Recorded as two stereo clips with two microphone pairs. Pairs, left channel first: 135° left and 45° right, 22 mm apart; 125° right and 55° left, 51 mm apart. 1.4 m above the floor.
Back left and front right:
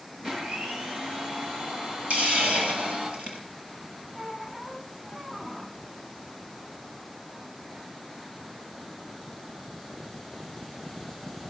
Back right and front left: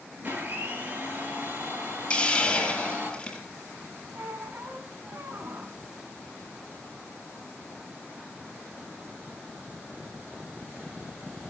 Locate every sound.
0.2 s a blender: 5° left, 8.5 m
2.1 s a hiss: 50° right, 6.5 m
4.2 s a squeak: 20° left, 3.5 m